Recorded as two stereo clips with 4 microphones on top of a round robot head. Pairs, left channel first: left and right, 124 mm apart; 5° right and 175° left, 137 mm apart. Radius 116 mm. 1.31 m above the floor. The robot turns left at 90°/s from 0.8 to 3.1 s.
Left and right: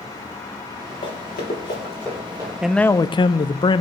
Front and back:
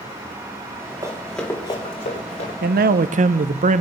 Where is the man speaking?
175° right, 0.6 m; by 3.8 s 145° left, 0.6 m.